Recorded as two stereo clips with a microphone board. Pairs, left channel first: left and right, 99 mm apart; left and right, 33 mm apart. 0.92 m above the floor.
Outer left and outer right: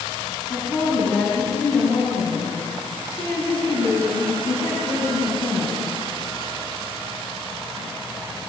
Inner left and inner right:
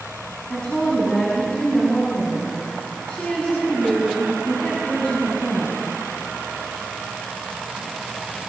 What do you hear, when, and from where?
0.5 s a woman speaking: 35° left (ahead or behind), 7 m